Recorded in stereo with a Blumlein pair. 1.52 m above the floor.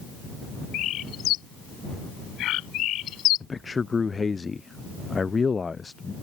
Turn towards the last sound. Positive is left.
turn(degrees=15)